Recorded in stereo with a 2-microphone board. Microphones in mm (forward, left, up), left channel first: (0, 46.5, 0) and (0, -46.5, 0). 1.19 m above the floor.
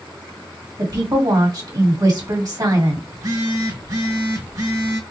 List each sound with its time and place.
0.8 s a woman speaking: 50° right (ahead or behind), 2.0 m
3.1 s a phone buzzing: 45° right (ahead or behind), 2 m